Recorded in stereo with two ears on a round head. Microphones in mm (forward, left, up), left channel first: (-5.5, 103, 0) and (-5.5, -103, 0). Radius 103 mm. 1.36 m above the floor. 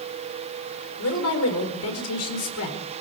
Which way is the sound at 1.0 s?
65° left (ahead or behind).